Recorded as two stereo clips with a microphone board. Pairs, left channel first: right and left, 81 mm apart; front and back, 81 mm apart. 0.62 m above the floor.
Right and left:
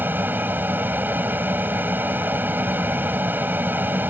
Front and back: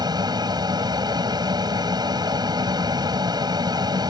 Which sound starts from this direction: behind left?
An aircraft, at 0.0 s.